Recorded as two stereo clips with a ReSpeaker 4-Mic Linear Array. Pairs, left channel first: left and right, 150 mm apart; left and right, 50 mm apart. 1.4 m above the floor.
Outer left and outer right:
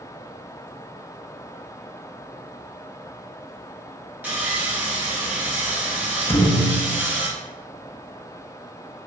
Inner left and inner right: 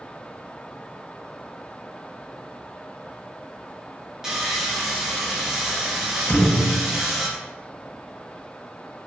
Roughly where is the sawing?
Centre.